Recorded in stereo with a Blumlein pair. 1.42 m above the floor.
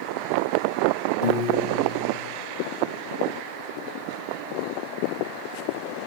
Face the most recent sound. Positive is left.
turn(degrees=30)